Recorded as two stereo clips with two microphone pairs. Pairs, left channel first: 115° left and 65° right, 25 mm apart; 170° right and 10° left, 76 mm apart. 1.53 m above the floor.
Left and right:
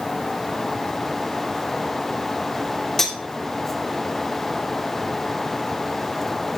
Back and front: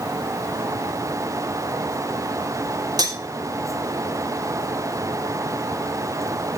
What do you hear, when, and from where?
3.0 s cutlery clinking: 40° left, 3 m